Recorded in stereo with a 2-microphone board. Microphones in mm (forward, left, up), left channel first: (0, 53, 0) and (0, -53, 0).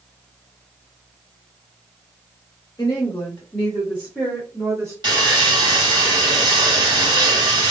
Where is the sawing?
40° right (ahead or behind), 1.9 m.